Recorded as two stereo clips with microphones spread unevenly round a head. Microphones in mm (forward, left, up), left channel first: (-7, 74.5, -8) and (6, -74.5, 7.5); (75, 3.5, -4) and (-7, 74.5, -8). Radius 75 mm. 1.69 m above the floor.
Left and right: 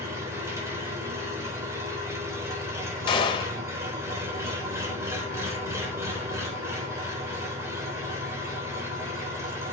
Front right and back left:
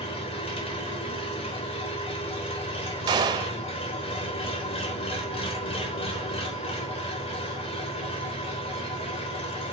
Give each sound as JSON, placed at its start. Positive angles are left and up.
{"t": 0.0, "sound": "an engine running", "azimuth_deg": -15, "distance_m": 3.5}
{"t": 3.1, "sound": "a gunshot", "azimuth_deg": 140, "distance_m": 1.7}